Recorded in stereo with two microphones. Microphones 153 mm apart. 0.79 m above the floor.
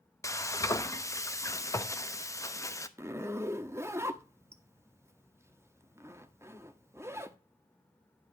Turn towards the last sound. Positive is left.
turn(degrees=-15)  # may be behind; listen again after turning